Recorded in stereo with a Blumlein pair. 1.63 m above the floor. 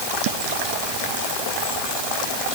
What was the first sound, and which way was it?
Only background noise.